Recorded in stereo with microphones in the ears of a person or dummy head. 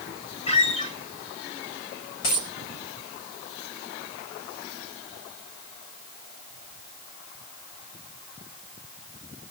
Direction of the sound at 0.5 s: 30° left (ahead or behind).